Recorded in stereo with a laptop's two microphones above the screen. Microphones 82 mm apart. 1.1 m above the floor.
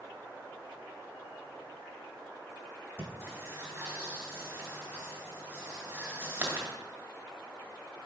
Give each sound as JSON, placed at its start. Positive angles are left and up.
{"t": 3.0, "sound": "breathing", "side_deg": -30, "distance_m": 1.6}